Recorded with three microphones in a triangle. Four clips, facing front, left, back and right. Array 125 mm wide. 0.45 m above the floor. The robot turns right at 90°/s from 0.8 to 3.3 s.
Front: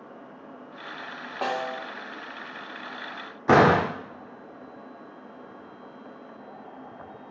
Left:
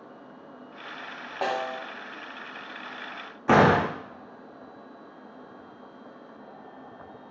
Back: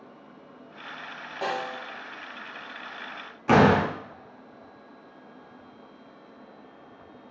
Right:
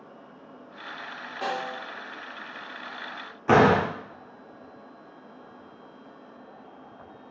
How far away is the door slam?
About 0.8 m.